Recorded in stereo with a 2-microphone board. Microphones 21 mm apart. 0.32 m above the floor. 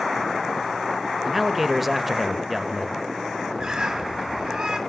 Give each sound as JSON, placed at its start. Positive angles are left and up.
{"t": 1.2, "sound": "a man speaking", "side_deg": -10, "distance_m": 1.0}
{"t": 3.6, "sound": "a bird", "side_deg": -30, "distance_m": 2.5}